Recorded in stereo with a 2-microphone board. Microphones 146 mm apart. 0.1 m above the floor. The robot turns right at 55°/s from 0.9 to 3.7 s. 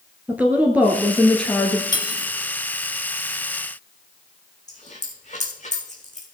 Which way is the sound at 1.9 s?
30° left (ahead or behind).